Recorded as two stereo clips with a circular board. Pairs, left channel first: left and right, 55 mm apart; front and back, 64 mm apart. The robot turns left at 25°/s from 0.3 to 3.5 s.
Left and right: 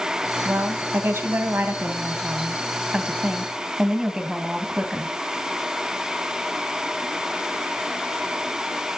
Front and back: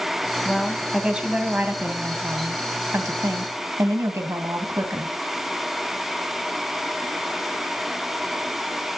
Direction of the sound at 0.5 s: 90° right.